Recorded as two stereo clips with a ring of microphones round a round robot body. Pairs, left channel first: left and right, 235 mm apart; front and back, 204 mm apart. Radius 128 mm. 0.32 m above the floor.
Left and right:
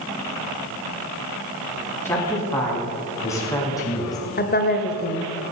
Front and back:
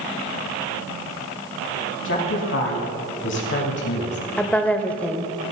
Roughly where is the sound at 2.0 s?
Ahead.